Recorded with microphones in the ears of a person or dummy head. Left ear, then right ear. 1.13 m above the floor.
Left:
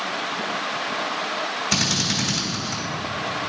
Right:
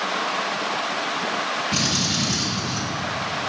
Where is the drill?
55° left (ahead or behind), 2 m.